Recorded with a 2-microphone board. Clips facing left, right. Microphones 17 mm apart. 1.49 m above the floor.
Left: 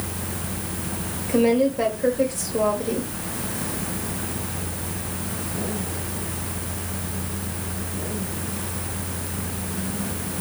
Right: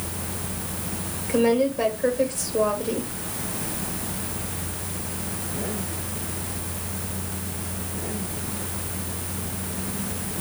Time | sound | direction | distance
1.3 | a woman speaking | 5° left (ahead or behind) | 3 m